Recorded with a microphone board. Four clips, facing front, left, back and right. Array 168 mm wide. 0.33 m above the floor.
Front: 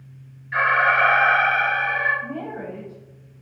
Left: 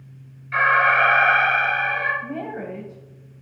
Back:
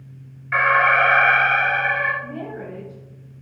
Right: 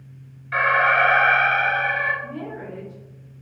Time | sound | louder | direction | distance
0.5 | an alarm | left 1 dB, back 2 dB | 160° right | 4 m
2.2 | a woman speaking | left 3 dB, front 1 dB | 75° left | 1.6 m